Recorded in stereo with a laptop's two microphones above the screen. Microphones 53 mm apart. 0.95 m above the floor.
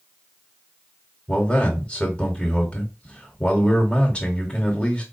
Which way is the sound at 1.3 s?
20° left (ahead or behind).